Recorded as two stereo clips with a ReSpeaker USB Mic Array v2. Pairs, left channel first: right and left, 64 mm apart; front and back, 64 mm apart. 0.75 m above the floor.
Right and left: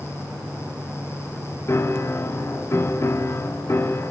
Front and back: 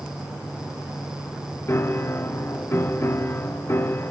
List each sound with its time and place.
1.7 s a piano: 45° right, 0.5 m